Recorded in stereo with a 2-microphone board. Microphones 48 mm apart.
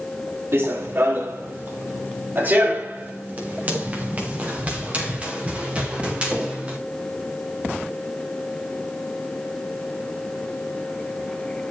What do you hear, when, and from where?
0.5 s running footsteps: 60° right (ahead or behind), 3.5 m; by 6.8 s 25° right (ahead or behind), 7.5 m